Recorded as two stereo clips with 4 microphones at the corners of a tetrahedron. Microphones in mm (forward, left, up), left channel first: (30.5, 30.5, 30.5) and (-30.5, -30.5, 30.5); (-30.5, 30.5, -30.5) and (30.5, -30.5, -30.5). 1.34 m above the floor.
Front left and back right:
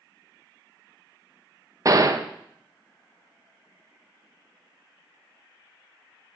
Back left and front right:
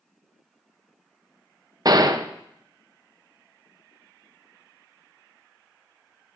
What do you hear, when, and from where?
1.9 s a gunshot: 85° right, 0.5 m